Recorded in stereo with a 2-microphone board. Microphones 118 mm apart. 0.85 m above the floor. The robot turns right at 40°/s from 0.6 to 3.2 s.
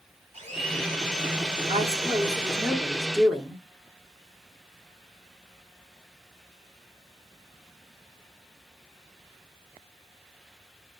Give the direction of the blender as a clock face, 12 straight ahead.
4 o'clock.